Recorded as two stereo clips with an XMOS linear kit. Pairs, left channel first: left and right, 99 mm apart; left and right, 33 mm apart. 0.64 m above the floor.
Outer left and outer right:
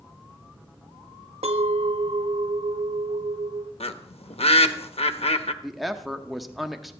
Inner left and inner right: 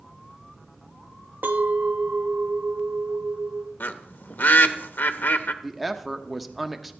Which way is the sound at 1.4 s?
70° right (ahead or behind).